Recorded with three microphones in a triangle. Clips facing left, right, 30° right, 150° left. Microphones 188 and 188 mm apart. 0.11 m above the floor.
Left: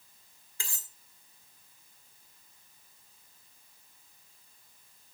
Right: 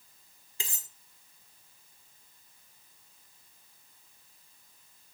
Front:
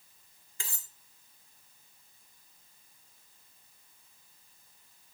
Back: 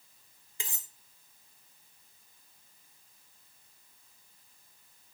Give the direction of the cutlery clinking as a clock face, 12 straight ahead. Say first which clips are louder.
Right 3 dB, back 2 dB; 5 o'clock.